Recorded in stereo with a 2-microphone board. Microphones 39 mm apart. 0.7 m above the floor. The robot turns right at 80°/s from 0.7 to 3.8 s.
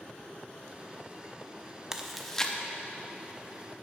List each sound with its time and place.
1.9 s chewing: 15° right (ahead or behind), 0.6 m; by 2.5 s 20° left (ahead or behind), 0.6 m